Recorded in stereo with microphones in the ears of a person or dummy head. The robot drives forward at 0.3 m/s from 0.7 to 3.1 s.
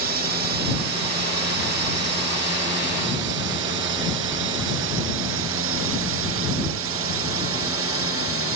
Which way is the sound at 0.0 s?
50° right (ahead or behind).